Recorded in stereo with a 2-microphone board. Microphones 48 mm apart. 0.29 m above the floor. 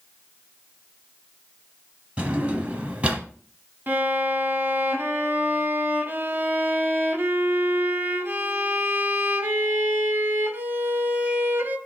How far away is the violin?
About 0.8 m.